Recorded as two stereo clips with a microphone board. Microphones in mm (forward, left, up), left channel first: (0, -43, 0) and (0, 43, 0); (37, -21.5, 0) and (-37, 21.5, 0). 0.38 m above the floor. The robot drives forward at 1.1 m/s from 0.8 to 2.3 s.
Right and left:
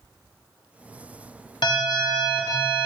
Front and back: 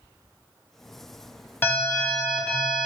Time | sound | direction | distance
1.6 | an alarm | 95° right | 2 m